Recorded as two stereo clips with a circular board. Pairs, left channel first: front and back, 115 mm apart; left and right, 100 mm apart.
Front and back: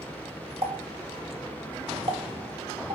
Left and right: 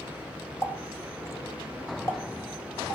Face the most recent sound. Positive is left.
turn(degrees=150)